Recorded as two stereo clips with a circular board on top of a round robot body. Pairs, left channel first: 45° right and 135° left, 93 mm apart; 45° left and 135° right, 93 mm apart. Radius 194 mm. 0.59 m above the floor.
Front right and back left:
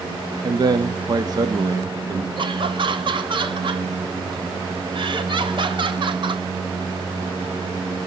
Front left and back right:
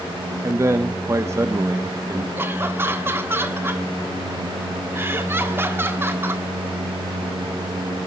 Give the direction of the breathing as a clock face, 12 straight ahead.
No breathing in this recording.